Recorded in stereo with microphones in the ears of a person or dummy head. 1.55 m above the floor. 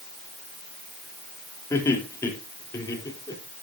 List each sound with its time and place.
1.7 s laughter: 15° left (ahead or behind), 3.5 m; by 3.4 s 20° left (ahead or behind), 4.5 m